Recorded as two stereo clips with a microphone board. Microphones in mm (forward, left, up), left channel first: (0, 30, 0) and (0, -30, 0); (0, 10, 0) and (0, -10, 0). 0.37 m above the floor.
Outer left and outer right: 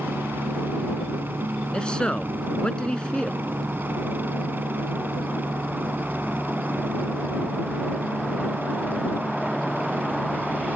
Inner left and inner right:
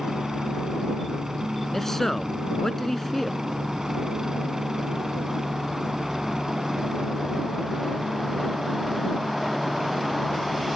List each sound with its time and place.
0.0 s a helicopter: 35° right (ahead or behind)
1.7 s a man speaking: 15° left (ahead or behind)